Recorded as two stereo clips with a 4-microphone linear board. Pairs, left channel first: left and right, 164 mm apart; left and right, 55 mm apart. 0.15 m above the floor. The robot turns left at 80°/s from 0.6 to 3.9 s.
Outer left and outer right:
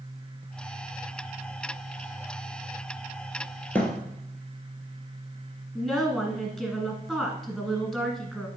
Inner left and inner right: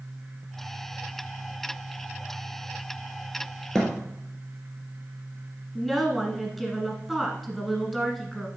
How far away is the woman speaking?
About 1.4 m.